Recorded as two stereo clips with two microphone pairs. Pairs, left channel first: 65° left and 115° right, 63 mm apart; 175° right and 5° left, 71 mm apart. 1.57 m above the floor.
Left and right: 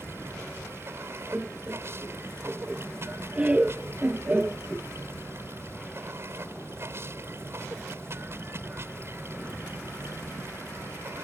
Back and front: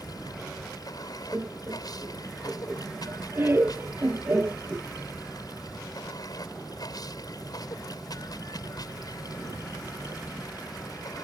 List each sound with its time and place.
0.0 s running water: 160° right
1.3 s laughter: 50° right